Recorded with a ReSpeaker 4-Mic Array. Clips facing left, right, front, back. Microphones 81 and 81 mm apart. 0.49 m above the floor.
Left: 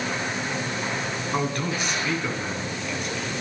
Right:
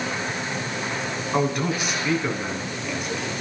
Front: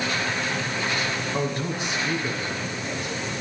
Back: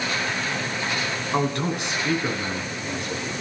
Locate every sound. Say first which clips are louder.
1.3 s a man speaking: right 4 dB, back 7 dB; 175° right, 4.5 m